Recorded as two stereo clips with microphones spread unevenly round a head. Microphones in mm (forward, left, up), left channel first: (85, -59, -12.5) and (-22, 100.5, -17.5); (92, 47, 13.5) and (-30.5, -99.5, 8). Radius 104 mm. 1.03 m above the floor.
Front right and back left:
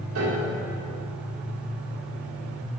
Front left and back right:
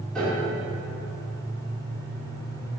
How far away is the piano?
About 2 m.